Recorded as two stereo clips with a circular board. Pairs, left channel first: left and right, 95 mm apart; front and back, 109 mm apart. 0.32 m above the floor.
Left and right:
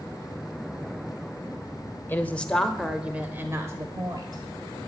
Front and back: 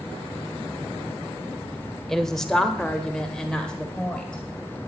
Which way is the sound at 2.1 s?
80° left.